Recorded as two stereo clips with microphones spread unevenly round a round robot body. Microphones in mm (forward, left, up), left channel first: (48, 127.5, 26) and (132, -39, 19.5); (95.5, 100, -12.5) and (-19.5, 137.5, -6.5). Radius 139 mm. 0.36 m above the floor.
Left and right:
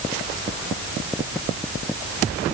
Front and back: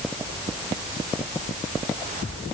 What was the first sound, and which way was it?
Only background noise.